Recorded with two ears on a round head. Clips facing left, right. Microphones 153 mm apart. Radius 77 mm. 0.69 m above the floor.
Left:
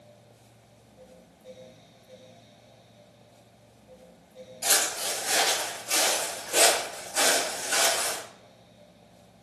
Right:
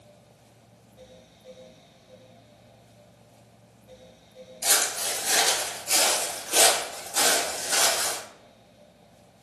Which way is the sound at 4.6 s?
15° right (ahead or behind).